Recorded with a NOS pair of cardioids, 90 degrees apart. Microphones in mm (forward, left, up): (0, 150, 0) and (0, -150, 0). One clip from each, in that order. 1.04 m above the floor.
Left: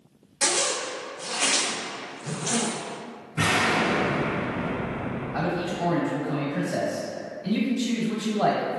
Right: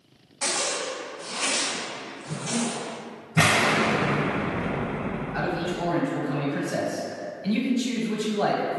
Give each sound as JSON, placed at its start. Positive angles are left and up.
{"t": 0.4, "sound": "a zipper", "azimuth_deg": 35, "distance_m": 0.5}
{"t": 3.4, "sound": "an explosion", "azimuth_deg": -60, "distance_m": 0.7}
{"t": 5.3, "sound": "a man speaking", "azimuth_deg": -5, "distance_m": 0.9}